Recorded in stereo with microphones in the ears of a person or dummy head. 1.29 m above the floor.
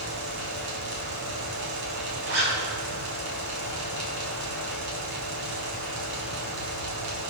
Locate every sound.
0.0 s a fan: 75° right (ahead or behind), 4.5 m
2.3 s a zipper: 80° right, 5 m